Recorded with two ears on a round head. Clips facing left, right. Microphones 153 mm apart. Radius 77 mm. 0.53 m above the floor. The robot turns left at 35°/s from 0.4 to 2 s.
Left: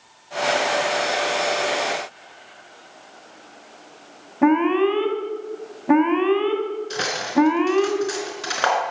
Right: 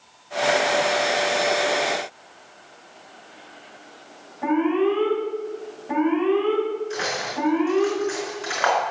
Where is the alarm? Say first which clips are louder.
Left 3 dB; 80° left, 2.5 m.